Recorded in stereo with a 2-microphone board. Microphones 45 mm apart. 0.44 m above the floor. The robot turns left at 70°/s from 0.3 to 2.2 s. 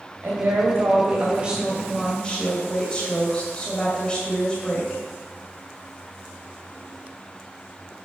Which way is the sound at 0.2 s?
70° right.